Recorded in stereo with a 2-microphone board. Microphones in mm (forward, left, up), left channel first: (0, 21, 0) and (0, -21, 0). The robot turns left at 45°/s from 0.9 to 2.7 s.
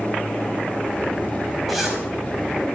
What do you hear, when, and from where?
1.7 s a zipper: 5° left (ahead or behind), 5 m; by 2.0 s 15° right (ahead or behind), 5 m